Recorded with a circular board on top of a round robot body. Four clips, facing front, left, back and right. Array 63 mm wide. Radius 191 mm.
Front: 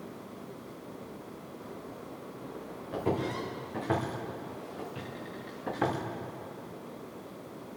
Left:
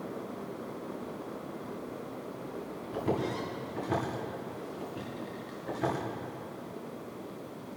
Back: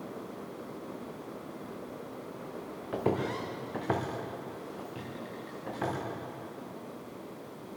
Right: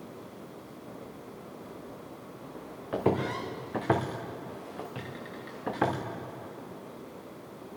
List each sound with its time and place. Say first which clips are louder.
2.9 s footsteps: right 4 dB, back 1 dB; 120° right, 3 m; by 6.0 s 75° right, 3.5 m